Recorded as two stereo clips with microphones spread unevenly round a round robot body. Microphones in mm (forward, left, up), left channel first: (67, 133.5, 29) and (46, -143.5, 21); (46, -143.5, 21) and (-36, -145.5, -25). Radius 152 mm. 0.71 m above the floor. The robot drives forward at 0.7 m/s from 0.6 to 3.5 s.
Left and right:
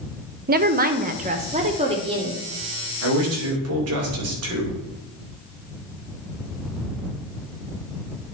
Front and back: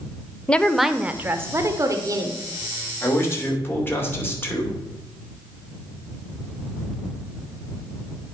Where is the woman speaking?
115° right, 0.6 m; by 2.4 s 165° right, 1.6 m.